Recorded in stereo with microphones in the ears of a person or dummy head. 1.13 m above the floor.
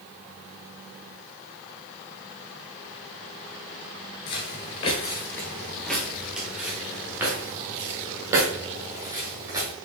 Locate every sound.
4.3 s footsteps: 30° left (ahead or behind), 1.2 m; by 9.7 s 25° right (ahead or behind), 3 m